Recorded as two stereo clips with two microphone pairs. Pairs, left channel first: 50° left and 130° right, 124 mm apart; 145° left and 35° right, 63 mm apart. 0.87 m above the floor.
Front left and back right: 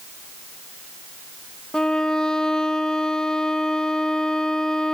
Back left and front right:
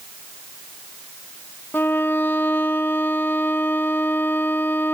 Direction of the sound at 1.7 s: 130° left.